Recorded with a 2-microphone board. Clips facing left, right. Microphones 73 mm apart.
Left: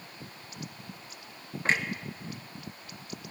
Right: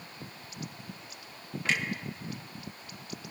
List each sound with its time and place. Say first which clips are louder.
1.6 s a clunk: left 3 dB; 35° left (ahead or behind), 0.9 m